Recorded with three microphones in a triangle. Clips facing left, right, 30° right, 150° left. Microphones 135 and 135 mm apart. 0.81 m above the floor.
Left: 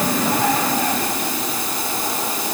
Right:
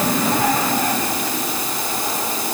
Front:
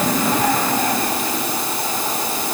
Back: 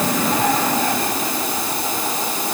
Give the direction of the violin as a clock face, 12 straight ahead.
I don't hear a violin.